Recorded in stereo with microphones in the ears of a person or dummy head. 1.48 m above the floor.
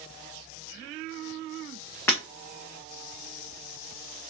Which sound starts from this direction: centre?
Breaking glass, at 2.1 s.